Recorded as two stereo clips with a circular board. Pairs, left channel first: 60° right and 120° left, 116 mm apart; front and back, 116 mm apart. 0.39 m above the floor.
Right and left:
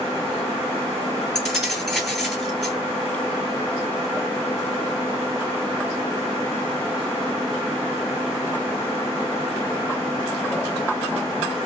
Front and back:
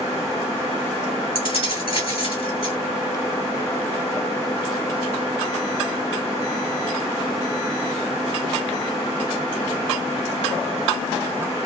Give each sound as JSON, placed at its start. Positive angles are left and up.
{"t": 1.4, "sound": "keys jangling", "azimuth_deg": 25, "distance_m": 2.0}